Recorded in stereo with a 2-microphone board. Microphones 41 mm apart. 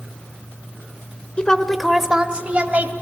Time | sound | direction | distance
1.4 | a woman speaking | 25° left (ahead or behind) | 1.2 m